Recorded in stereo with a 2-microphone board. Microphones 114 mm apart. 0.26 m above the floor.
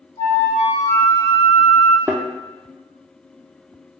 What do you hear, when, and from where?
0.2 s a flute: 60° left (ahead or behind), 1.2 m
2.1 s a thud: 25° right (ahead or behind), 0.6 m